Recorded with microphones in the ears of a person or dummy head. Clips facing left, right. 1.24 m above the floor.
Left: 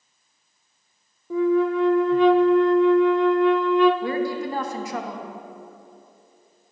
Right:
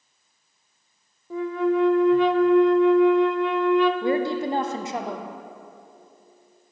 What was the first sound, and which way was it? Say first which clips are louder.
A flute: left 3 dB; 85° left.